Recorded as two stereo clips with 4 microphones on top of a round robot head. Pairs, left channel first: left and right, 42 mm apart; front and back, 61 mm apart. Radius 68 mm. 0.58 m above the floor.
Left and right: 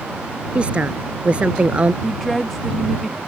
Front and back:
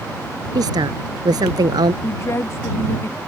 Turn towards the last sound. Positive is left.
turn(degrees=5)